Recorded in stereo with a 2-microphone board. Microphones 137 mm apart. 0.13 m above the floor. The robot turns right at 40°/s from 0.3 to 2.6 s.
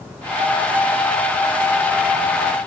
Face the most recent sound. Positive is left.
No sound to turn to.